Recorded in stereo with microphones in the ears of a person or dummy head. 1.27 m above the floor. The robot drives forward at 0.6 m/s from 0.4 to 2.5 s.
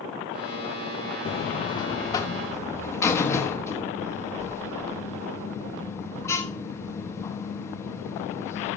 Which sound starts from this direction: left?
A buzzer, at 1.2 s.